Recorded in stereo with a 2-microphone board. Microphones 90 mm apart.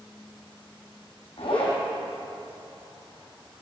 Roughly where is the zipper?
Left.